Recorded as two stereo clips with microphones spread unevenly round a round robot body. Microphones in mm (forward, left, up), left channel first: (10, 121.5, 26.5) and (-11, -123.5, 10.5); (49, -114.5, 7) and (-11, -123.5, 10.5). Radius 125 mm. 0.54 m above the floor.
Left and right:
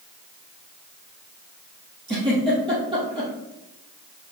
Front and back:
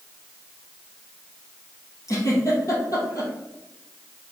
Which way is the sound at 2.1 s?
25° right.